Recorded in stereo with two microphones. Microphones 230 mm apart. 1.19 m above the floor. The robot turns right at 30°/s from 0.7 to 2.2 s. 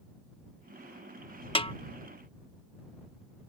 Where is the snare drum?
25° left (ahead or behind).